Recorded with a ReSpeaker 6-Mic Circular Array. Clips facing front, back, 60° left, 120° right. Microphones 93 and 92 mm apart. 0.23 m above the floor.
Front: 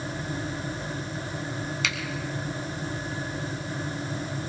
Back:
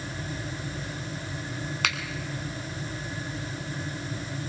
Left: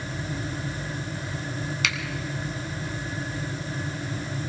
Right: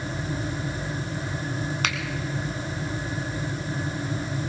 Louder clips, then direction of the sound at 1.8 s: Back 4 dB, right 1 dB; 155° right.